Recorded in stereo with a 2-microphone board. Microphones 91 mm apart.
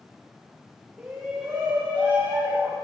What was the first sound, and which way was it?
A shout, 20° right (ahead or behind).